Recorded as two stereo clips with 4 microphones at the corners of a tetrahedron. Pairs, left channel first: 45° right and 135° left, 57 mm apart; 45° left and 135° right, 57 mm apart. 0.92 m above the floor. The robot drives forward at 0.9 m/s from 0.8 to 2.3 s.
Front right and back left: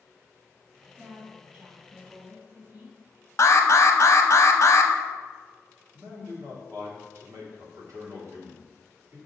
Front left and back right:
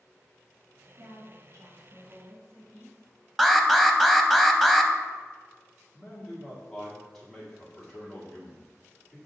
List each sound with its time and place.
1.0 s a woman speaking: 165° right, 1.8 m; by 3.0 s 170° right, 3 m
3.4 s an alarm: 50° right, 0.6 m
5.9 s a man speaking: 130° left, 2.0 m